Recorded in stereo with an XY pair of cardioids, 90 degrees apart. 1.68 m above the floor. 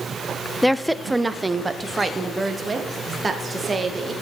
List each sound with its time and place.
0.6 s a woman speaking: 5° left, 0.6 m; by 4.1 s 35° right, 2.5 m